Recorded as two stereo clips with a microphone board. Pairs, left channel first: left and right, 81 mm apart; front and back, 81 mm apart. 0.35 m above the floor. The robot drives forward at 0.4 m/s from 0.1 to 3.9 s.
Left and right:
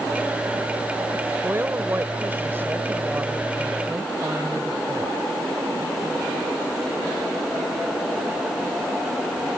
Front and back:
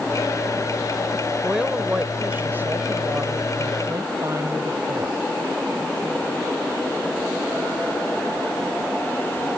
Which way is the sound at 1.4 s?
110° right.